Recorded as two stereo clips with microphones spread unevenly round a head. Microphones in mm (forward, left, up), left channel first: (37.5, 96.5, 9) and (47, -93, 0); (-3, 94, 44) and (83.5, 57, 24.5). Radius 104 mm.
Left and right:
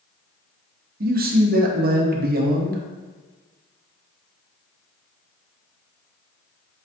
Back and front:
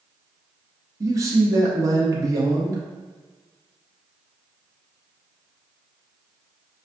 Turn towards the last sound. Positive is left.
turn(degrees=-65)